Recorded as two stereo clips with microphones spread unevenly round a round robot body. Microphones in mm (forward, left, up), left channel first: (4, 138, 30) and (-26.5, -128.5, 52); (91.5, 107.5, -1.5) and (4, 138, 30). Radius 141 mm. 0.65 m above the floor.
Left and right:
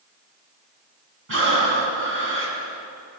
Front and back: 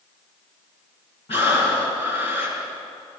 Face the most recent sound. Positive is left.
turn(degrees=-50)